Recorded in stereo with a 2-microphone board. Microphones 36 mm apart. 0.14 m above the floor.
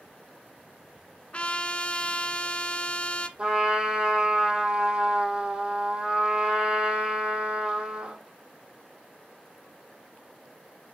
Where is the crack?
I don't hear a crack.